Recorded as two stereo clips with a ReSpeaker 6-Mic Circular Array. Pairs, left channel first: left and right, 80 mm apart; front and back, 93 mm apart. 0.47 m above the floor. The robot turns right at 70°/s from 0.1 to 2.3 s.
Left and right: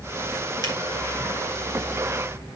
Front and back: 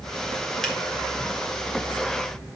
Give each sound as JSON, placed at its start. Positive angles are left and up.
{"t": 0.6, "sound": "a finger snap", "azimuth_deg": 85, "distance_m": 1.8}